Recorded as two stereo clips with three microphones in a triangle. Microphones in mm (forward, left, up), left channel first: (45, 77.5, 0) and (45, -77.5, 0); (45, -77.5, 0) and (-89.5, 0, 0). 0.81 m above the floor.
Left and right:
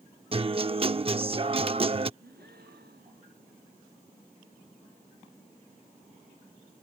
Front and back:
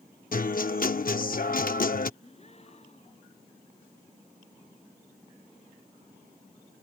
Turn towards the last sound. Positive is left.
turn(degrees=-80)